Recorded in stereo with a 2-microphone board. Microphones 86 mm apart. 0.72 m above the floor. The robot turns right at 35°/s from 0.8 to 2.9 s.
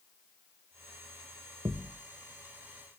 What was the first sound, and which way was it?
A thud, 50° right (ahead or behind).